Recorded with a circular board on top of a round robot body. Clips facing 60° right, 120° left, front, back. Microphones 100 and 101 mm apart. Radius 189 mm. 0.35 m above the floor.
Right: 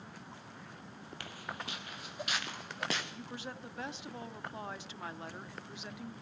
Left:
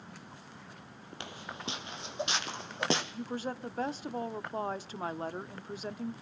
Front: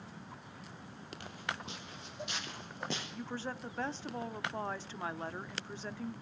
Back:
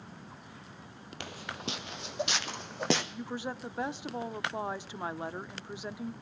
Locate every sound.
1.2 s footsteps: 170° right, 0.9 m; by 3.0 s 175° right, 2 m
3.1 s a woman speaking: 110° left, 1.3 m